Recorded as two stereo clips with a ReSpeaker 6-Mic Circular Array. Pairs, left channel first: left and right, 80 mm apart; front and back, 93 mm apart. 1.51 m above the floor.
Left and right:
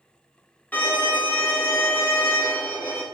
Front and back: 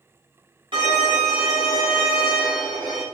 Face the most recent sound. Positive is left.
turn(degrees=160)